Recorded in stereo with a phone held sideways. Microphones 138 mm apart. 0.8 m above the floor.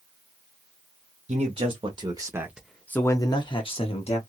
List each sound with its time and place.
1.3 s a man speaking: 50° right (ahead or behind), 1.3 m; by 4.2 s 50° left (ahead or behind), 1.4 m